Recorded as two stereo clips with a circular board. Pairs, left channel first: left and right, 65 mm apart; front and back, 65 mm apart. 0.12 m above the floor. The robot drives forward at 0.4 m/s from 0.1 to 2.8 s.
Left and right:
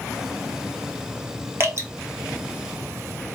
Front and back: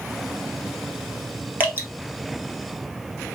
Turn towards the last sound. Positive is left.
turn(degrees=-140)